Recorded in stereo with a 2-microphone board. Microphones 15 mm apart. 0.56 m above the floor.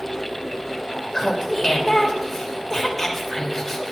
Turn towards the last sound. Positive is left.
turn(degrees=20)  # may be behind; listen again after turning